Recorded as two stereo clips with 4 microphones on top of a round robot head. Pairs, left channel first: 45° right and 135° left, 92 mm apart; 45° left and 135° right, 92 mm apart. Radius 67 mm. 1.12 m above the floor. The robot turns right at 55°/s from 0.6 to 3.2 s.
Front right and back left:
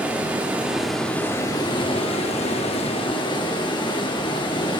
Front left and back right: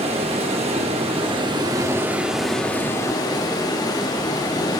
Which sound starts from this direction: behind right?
Running water, at 0.0 s.